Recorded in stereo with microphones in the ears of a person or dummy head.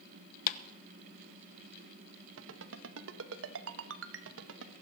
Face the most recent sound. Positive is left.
turn(degrees=-80)